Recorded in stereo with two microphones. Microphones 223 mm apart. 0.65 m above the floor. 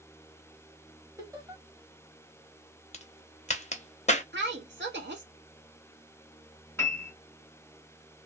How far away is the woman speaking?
About 1.2 m.